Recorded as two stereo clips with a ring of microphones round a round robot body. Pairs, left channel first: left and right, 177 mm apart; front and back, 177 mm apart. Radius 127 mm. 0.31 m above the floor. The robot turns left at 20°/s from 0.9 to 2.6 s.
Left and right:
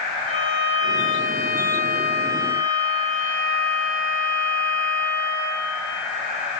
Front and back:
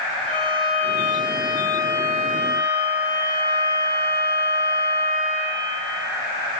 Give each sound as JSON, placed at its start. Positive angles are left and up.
{"t": 0.2, "sound": "a violin", "azimuth_deg": -95, "distance_m": 3.5}